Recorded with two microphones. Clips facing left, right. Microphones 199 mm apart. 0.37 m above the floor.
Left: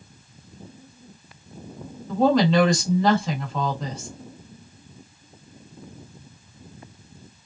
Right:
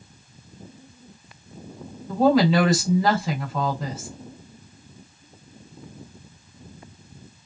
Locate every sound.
2.1 s a woman speaking: 5° right (ahead or behind), 1.5 m